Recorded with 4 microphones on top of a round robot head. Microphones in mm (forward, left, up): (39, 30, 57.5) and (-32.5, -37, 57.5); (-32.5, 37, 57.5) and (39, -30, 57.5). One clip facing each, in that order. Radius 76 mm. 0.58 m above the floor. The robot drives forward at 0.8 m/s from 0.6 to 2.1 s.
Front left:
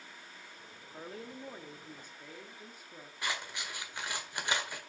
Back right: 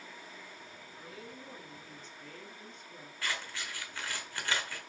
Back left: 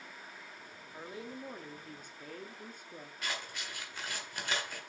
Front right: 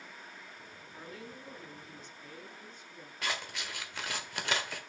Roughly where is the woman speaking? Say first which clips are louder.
Front left 5 dB, back left 3 dB; left.